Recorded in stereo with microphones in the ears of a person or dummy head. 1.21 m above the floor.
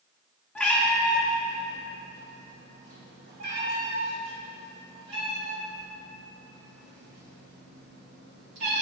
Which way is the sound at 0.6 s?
5° left (ahead or behind).